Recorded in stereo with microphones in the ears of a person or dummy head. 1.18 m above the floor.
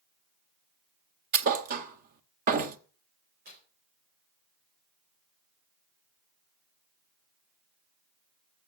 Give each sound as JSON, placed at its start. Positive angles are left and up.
{"t": 1.3, "sound": "a thud", "side_deg": -45, "distance_m": 1.4}
{"t": 3.5, "sound": "tearing paper", "side_deg": -55, "distance_m": 3.5}